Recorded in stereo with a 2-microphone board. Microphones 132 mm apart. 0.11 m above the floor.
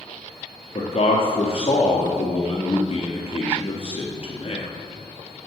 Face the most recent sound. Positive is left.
turn(degrees=50)  # may be behind; listen again after turning